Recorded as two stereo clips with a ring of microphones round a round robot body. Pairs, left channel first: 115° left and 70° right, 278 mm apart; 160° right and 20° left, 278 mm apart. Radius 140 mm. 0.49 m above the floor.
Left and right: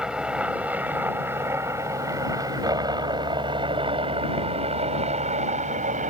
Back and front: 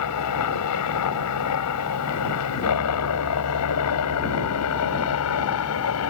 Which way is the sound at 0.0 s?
155° right.